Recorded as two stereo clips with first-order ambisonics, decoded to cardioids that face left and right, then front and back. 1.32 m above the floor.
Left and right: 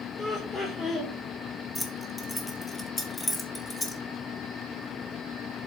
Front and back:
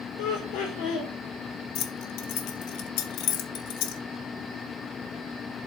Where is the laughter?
20° left, 4 m.